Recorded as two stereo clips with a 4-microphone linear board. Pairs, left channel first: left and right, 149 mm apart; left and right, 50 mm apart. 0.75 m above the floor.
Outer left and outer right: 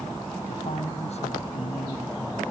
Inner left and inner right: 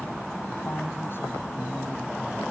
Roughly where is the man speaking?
Left.